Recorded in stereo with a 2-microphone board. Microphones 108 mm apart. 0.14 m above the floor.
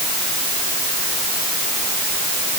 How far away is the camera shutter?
I don't hear a camera shutter.